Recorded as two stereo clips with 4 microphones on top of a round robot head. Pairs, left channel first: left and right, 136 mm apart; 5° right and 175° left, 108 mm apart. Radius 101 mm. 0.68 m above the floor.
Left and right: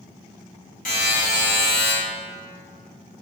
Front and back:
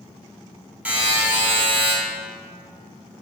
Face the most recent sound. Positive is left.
turn(degrees=100)